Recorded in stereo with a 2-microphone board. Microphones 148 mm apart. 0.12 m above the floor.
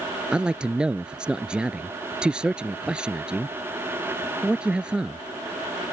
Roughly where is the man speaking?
Centre.